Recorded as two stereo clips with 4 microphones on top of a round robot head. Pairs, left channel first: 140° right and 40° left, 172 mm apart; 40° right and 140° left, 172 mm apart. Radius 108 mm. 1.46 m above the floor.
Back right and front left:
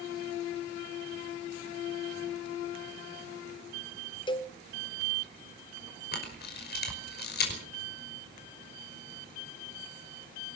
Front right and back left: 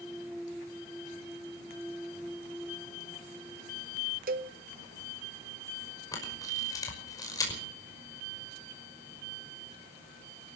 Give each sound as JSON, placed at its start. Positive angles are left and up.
{"t": 4.3, "sound": "a cowbell", "azimuth_deg": 160, "distance_m": 0.6}
{"t": 6.1, "sound": "a camera shutter", "azimuth_deg": -110, "distance_m": 5.5}